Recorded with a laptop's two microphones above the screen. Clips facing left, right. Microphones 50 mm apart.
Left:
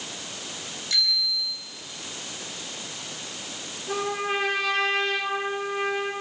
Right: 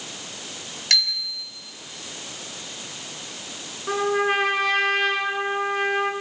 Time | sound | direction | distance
0.9 | a bicycle bell | 70° right (ahead or behind) | 6.5 m
3.9 | a trumpet | 50° right (ahead or behind) | 10 m